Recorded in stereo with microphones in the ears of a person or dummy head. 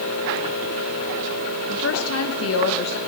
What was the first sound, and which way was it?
A woman speaking, 80° left.